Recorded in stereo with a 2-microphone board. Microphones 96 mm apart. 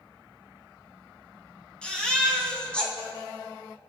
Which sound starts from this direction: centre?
A baby crying, at 1.8 s.